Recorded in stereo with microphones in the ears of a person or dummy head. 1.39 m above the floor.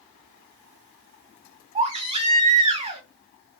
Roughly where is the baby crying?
Right.